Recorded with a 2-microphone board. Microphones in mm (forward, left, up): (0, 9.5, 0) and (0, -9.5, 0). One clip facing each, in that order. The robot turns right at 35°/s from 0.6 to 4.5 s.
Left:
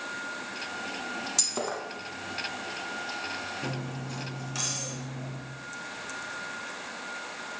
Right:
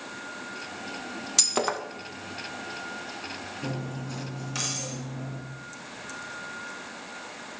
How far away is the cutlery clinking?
About 3.5 m.